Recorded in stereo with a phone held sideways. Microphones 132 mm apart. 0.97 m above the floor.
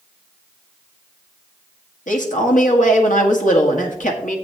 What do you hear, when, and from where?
2.1 s a man speaking: 75° left (ahead or behind), 1.8 m